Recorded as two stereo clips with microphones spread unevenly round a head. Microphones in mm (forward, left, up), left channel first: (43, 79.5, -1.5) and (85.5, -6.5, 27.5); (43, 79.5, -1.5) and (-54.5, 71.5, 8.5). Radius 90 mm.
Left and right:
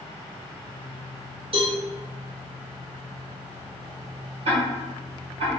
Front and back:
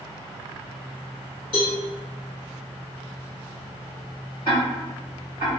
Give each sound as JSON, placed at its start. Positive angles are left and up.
{"t": 1.5, "sound": "a cowbell", "azimuth_deg": -40, "distance_m": 1.4}
{"t": 4.5, "sound": "ticking", "azimuth_deg": -70, "distance_m": 1.4}